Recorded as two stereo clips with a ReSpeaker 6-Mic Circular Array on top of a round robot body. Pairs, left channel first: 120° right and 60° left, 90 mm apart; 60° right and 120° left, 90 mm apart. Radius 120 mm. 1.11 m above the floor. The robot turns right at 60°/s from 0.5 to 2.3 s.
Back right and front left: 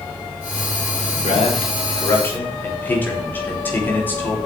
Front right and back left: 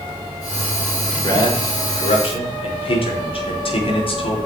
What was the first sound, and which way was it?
A man speaking, 110° right.